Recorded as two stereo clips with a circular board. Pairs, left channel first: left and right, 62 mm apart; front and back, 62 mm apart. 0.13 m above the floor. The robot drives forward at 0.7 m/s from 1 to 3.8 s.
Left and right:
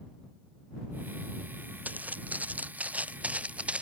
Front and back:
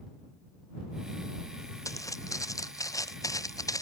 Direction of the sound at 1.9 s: 25° right.